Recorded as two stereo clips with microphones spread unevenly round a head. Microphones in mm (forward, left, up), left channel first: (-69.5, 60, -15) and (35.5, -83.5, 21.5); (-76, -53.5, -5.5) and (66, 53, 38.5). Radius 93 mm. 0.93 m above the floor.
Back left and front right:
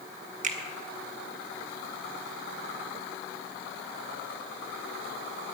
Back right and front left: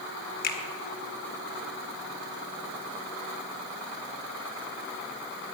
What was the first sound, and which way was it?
A finger snap, 100° right.